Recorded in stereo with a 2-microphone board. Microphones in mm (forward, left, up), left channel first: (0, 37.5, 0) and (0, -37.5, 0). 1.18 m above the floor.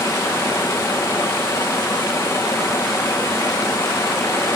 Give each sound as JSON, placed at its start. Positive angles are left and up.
{"t": 0.0, "sound": "running water", "side_deg": 30, "distance_m": 7.0}